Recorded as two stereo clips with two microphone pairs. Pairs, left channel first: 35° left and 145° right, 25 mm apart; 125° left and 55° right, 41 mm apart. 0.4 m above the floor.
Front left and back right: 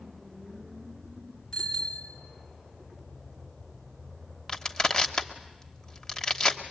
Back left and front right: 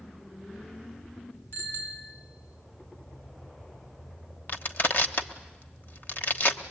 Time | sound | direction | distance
1.5 | a bicycle bell | 110° left | 4 m
4.5 | crushing | 100° left | 1.2 m